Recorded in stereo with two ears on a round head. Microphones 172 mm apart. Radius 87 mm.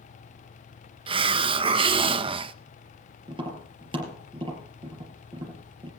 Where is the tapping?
30° right (ahead or behind), 4 m.